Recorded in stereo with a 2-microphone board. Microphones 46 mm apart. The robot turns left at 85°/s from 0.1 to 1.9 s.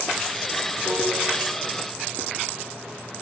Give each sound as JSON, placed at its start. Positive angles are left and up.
{"t": 0.8, "sound": "a piano", "side_deg": 55, "distance_m": 7.5}